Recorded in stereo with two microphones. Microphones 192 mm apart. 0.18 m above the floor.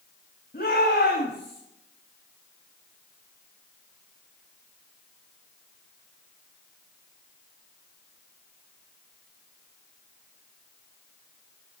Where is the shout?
50° left (ahead or behind), 9.5 m; by 1.6 s 60° left (ahead or behind), 8.5 m.